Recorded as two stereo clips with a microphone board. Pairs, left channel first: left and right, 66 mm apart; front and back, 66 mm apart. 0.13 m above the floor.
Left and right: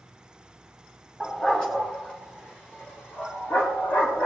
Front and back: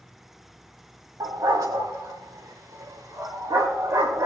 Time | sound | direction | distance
1.2 | a dog barking | 170° left | 4.5 m